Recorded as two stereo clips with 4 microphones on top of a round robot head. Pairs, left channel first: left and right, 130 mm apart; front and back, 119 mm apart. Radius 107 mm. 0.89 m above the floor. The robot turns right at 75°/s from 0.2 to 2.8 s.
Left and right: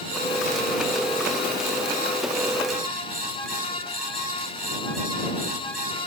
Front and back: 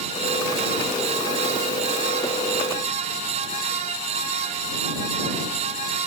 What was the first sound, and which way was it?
Only background noise.